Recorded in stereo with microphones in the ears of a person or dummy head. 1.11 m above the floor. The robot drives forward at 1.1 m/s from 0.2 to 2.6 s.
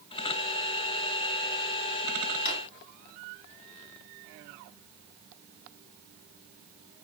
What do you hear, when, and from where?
2.5 s a drawer: 45° left (ahead or behind), 3 m